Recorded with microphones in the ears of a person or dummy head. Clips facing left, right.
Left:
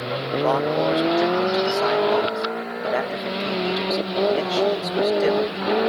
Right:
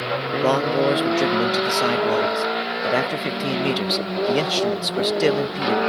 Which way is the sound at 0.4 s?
35° right (ahead or behind).